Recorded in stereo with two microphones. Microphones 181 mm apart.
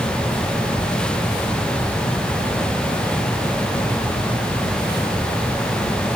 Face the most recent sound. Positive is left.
No sound to turn to.